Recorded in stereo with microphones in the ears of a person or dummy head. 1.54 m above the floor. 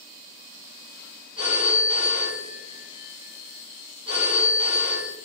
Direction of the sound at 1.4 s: 35° right (ahead or behind).